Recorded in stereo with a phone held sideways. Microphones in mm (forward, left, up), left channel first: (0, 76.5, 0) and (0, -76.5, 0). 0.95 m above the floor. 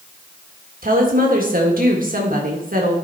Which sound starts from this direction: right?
A woman speaking, at 0.8 s.